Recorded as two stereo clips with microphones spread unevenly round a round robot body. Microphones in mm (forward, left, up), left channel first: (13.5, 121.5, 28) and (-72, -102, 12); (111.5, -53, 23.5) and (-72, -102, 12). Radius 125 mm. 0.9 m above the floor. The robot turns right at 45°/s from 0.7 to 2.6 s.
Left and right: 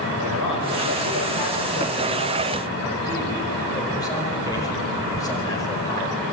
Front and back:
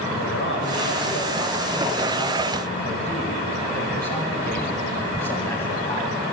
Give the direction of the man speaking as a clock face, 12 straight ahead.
10 o'clock.